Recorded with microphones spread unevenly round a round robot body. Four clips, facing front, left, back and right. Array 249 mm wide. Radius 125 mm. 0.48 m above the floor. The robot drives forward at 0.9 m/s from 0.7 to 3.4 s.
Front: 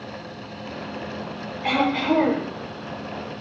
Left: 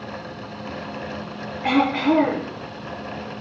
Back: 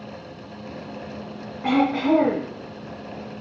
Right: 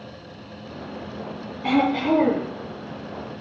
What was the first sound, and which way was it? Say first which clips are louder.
Throat clearing: left 1 dB, back 2 dB; 140° right.